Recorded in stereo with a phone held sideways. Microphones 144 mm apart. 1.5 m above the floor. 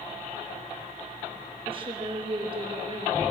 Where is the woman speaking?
35° right (ahead or behind), 3 m.